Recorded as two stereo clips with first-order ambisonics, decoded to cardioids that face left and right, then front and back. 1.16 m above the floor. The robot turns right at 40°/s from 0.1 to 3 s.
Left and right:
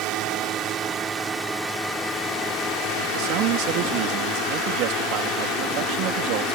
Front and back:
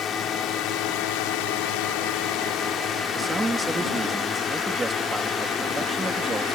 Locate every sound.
0.0 s a drone: 60° right; by 6.5 s 55° left
3.1 s a man speaking: 105° right